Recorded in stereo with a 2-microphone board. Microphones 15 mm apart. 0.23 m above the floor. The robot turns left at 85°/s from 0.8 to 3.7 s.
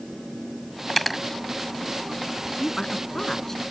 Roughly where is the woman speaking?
Left.